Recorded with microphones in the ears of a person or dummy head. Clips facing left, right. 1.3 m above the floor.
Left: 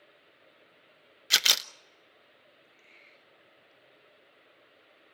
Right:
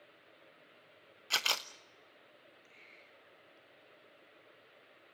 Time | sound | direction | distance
1.3 | a camera shutter | 20° left (ahead or behind) | 0.6 m